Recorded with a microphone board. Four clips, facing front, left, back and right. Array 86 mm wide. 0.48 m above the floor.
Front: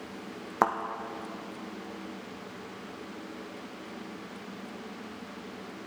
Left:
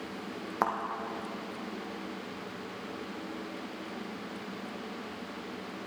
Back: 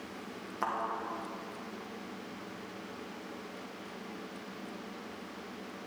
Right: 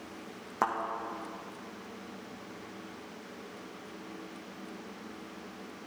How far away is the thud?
About 1.3 m.